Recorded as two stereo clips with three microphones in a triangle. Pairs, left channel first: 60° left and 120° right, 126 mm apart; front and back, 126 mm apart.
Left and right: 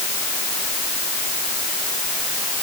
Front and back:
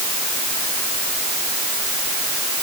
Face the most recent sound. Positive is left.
No sound to turn to.